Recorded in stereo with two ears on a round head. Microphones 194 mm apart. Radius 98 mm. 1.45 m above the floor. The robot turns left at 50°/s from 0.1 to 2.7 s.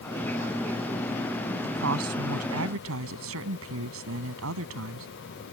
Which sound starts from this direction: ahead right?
A woman speaking, at 1.6 s.